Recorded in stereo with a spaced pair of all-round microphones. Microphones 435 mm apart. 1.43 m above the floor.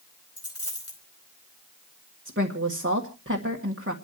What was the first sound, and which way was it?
A dropped coin, 35° left (ahead or behind).